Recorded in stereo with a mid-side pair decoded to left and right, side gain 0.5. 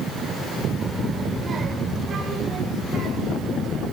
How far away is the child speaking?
About 2.5 m.